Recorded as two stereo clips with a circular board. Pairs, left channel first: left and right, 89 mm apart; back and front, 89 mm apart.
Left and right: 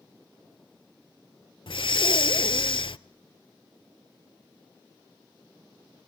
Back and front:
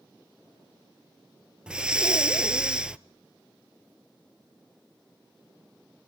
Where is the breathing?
80° left, 0.5 m.